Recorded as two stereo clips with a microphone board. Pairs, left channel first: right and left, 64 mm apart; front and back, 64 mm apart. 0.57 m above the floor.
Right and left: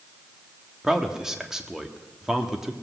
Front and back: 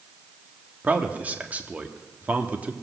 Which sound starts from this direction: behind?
A man speaking, at 0.8 s.